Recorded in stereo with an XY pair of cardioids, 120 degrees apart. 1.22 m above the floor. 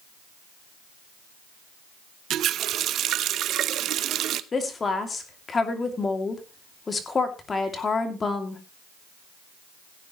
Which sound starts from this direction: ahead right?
A running tap, at 2.3 s.